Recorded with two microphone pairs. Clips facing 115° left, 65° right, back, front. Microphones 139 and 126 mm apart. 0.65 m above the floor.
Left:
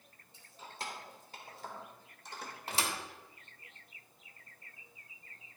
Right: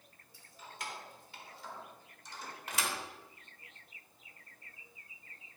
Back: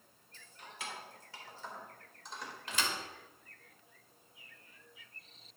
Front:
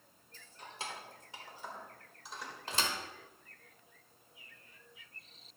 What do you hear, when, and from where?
0.3 s keys jangling: 50° left, 1.4 m; by 2.5 s 90° left, 1.7 m
2.7 s a thud: 60° left, 1.0 m